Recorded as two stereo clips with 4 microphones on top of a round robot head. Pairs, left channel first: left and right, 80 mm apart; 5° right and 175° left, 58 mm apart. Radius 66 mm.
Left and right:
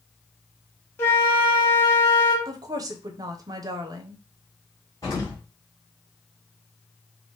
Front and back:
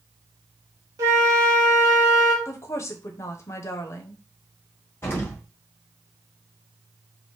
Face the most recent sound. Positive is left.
turn(degrees=30)